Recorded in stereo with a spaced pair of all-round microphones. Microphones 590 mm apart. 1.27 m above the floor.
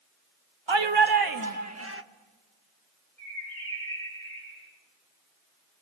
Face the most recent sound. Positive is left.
turn(degrees=80)